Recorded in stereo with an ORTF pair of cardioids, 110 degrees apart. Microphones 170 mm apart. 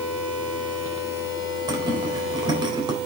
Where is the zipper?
25° right, 3.5 m.